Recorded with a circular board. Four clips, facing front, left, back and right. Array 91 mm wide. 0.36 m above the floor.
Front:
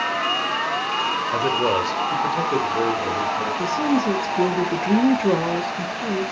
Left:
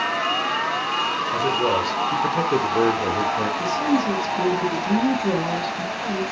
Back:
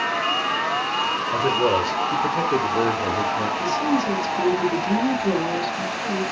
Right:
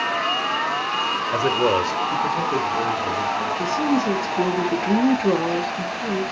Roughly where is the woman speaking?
Ahead right.